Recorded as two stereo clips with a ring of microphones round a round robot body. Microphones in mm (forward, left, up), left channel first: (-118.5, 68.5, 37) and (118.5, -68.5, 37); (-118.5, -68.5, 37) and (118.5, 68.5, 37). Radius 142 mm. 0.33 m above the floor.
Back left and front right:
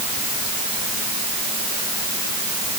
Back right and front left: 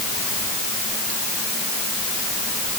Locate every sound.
Only background noise.